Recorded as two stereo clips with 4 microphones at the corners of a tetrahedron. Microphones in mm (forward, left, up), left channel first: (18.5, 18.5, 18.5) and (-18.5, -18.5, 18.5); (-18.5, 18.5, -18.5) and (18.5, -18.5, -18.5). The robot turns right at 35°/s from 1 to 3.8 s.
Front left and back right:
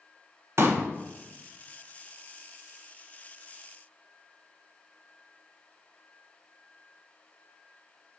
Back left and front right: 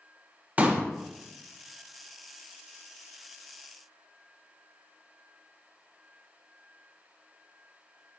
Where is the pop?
105° right, 1.3 m.